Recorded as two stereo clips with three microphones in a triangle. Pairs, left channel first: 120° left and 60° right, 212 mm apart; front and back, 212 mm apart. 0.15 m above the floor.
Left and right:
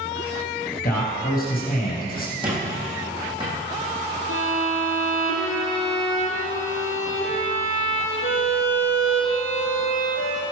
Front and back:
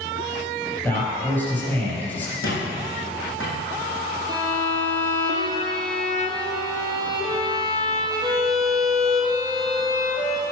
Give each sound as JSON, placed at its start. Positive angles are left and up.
{"t": 0.8, "sound": "a man speaking", "azimuth_deg": 80, "distance_m": 3.5}
{"t": 2.4, "sound": "a squeak", "azimuth_deg": 5, "distance_m": 3.5}
{"t": 4.3, "sound": "a violin", "azimuth_deg": 110, "distance_m": 1.9}